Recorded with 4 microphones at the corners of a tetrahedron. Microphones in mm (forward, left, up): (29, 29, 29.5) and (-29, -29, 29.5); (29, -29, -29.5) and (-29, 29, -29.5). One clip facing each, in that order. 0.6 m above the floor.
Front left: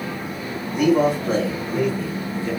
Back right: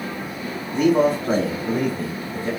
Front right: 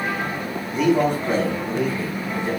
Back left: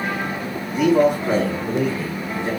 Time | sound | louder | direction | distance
0.7 | a man speaking | even, back left 3 dB | 135° right | 1.1 m